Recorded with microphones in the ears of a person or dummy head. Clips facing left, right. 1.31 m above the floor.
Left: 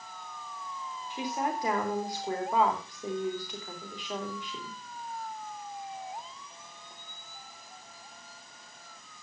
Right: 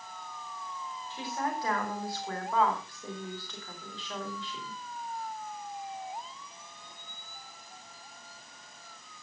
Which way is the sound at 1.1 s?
15° left (ahead or behind).